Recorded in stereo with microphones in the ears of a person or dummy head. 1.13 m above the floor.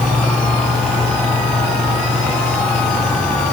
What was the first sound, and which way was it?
Only background noise.